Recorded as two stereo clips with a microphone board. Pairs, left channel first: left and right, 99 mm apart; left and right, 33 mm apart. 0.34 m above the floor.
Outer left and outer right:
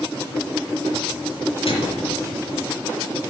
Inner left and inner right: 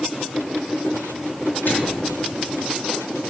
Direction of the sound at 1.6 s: 65° left (ahead or behind).